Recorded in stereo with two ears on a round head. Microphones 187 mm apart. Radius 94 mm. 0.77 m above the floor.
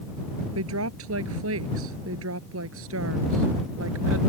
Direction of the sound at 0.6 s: 80° right.